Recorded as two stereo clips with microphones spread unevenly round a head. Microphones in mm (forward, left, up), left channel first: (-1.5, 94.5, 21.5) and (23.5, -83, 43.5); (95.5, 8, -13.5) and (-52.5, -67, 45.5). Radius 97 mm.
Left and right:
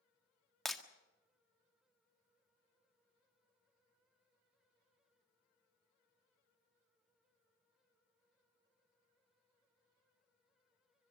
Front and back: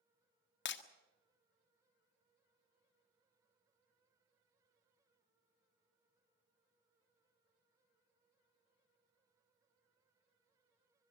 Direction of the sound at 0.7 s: 10° left.